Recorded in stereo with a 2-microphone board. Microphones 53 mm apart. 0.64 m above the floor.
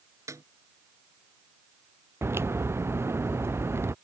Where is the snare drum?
65° right (ahead or behind).